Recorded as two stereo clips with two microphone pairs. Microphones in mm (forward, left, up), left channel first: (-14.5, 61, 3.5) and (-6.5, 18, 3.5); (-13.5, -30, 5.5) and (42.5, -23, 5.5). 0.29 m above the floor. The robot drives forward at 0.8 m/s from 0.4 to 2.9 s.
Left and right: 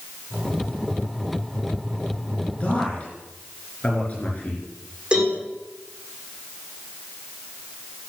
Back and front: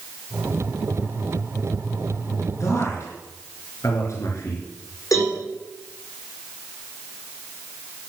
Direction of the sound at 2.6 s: 155° left.